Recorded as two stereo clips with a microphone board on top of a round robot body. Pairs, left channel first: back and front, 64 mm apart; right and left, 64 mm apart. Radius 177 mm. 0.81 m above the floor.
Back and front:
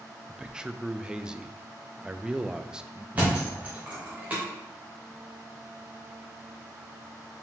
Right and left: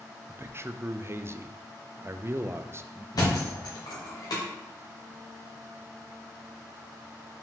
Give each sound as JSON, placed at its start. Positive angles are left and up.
{"t": 0.3, "sound": "a man speaking", "azimuth_deg": 70, "distance_m": 0.5}
{"t": 3.1, "sound": "a thud", "azimuth_deg": -65, "distance_m": 0.9}